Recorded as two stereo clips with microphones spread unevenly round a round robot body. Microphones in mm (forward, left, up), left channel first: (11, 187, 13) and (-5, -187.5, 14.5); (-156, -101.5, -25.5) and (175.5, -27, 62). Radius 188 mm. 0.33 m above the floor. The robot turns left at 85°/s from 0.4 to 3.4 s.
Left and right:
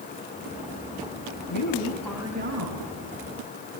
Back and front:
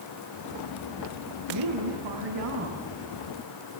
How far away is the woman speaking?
About 4 m.